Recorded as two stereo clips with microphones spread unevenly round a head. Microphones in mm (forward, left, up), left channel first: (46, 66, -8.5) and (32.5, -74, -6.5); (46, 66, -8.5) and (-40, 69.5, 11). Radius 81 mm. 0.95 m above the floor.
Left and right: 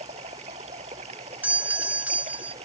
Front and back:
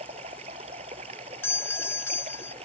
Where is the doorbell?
25° right.